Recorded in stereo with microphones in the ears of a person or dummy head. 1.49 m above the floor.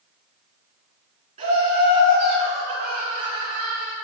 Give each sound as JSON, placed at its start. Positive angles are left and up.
{"t": 1.4, "sound": "laughter", "side_deg": -40, "distance_m": 1.3}